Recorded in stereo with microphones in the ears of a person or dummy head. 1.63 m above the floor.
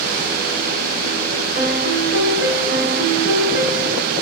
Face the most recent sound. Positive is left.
turn(degrees=-65)  # may be behind; listen again after turning